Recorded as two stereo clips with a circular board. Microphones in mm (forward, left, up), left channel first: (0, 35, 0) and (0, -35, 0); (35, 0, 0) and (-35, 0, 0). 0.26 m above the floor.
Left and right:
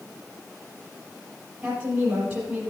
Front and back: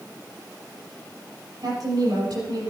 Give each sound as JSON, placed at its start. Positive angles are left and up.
{"t": 1.6, "sound": "a woman speaking", "azimuth_deg": -160, "distance_m": 6.5}